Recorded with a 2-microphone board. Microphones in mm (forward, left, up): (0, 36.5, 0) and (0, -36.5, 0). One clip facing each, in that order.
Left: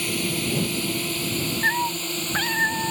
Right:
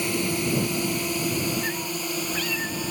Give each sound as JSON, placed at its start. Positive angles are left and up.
{"t": 0.0, "sound": "a drone", "side_deg": -20}
{"t": 1.6, "sound": "a cat meowing", "side_deg": 50}